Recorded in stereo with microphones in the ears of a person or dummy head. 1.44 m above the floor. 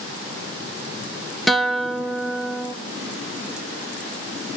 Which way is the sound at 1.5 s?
5° right (ahead or behind).